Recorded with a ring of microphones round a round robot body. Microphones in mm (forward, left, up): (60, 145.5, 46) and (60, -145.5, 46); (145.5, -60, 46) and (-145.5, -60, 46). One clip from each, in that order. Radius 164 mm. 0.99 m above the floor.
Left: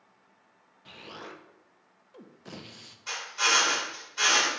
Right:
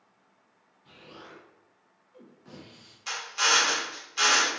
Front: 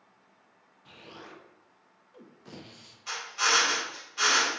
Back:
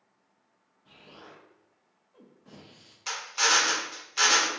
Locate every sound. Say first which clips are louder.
0.8 s an explosion: left 5 dB, front 3 dB; 45° left, 0.6 m
3.1 s a drill: right 1 dB, back 1 dB; 155° right, 1.3 m